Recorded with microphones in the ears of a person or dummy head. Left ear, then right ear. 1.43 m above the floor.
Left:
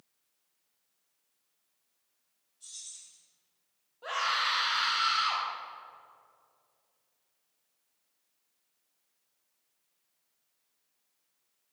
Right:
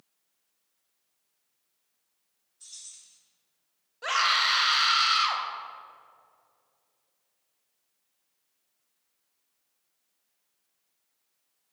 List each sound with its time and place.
2.6 s keys jangling: 40° right (ahead or behind), 3 m
4.0 s a scream: 60° right (ahead or behind), 1.4 m